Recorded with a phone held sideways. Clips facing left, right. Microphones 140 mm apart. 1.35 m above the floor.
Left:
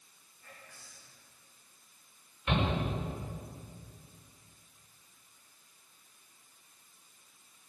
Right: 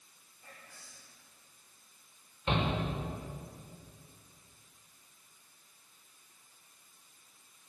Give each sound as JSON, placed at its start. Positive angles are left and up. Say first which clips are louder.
{"t": 0.4, "sound": "whispering", "louder": "even", "side_deg": -30, "distance_m": 3.0}
{"t": 2.5, "sound": "a shout", "louder": "left 1 dB", "side_deg": -30, "distance_m": 5.5}